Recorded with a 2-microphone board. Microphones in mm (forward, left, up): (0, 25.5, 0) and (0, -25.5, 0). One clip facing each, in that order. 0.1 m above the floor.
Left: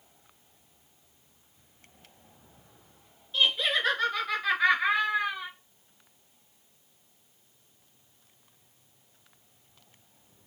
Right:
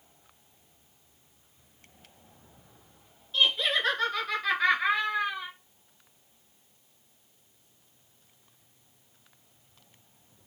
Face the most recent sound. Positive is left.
turn(degrees=5)  # may be behind; listen again after turning